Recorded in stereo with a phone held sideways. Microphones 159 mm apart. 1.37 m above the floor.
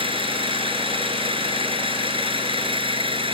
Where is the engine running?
35° right (ahead or behind).